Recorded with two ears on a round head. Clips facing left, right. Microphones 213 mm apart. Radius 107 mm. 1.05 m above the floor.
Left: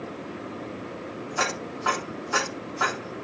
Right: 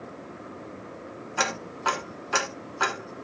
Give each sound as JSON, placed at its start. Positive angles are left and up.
{"t": 1.4, "sound": "ticking", "side_deg": -45, "distance_m": 3.0}